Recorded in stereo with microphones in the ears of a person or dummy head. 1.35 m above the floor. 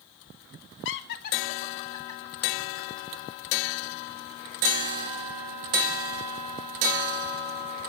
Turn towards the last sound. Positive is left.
turn(degrees=5)  # may be behind; listen again after turning